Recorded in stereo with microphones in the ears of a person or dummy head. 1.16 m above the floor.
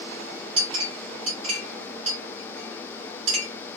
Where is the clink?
40° right (ahead or behind), 2 m.